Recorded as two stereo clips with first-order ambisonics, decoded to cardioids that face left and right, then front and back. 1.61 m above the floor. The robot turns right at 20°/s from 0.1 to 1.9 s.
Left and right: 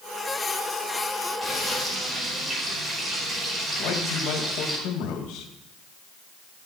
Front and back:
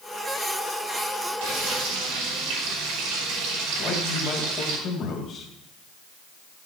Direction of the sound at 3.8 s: 60° left.